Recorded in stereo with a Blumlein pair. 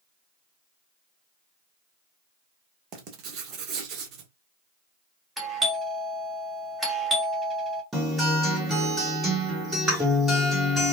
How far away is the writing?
About 1.0 m.